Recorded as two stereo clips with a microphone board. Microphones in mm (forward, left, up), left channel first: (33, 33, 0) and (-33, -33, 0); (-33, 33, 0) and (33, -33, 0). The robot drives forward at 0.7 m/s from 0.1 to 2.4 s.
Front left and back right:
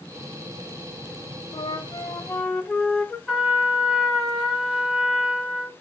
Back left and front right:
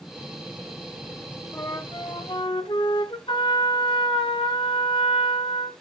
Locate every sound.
1.5 s a flute: 75° left, 0.7 m; by 3.2 s 120° left, 0.8 m
3.3 s a trumpet: 135° left, 1.7 m